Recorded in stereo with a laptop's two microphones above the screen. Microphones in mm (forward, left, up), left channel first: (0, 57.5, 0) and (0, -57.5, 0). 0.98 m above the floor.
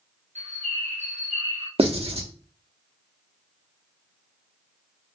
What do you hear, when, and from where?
0.3 s a bird: 75° right (ahead or behind), 0.7 m
1.8 s writing: 55° right (ahead or behind), 0.7 m